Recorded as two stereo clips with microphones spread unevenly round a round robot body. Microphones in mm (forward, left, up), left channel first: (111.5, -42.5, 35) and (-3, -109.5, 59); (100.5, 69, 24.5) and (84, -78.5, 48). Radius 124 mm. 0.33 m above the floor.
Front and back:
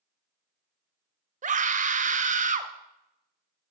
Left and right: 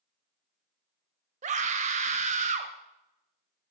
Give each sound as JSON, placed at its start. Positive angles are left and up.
{"t": 1.4, "sound": "a scream", "azimuth_deg": -140, "distance_m": 1.5}